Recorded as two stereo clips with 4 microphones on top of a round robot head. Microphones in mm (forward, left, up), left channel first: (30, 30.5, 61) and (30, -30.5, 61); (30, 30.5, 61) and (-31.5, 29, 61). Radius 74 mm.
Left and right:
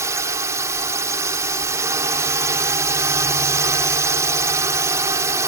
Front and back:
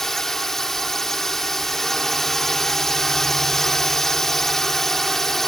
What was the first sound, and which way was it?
A drone, 85° right.